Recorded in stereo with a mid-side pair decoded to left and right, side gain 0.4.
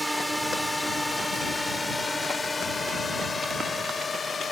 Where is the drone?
10° right; by 4.5 s 40° left.